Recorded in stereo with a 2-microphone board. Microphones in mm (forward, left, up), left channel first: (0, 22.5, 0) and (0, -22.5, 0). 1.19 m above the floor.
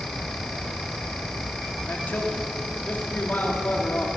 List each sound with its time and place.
1.9 s a man speaking: 40° left (ahead or behind), 2.5 m